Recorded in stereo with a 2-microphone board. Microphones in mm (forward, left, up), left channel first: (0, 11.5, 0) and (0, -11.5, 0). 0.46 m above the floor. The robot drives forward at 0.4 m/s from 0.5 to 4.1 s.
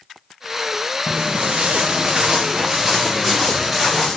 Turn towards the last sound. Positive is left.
turn(degrees=5)  # may be behind; listen again after turning